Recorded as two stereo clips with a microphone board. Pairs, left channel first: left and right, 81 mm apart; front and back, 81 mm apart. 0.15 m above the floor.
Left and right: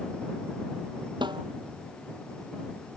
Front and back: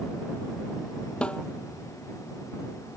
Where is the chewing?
I don't hear chewing.